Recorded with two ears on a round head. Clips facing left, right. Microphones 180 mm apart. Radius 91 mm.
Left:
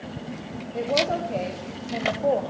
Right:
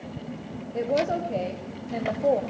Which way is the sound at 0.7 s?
10° right (ahead or behind).